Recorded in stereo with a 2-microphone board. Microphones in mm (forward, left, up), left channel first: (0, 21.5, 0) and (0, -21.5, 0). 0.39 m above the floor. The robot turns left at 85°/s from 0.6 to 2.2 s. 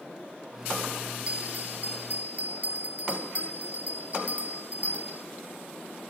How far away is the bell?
About 0.9 m.